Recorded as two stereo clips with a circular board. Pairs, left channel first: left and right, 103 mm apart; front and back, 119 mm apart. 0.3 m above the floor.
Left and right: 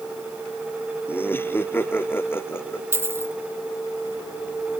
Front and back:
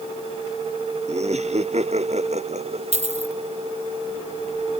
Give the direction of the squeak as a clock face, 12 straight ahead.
I don't hear a squeak.